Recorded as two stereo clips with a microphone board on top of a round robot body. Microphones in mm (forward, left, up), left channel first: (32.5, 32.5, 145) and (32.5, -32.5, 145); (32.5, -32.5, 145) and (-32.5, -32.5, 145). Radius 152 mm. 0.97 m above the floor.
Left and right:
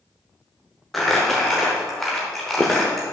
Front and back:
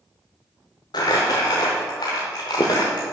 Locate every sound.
0.9 s crumpling: 5° left, 0.7 m